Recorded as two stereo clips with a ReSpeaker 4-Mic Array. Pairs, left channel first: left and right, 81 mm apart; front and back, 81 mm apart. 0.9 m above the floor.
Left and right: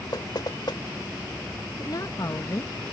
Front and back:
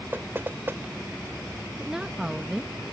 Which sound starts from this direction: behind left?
Knocking, at 0.1 s.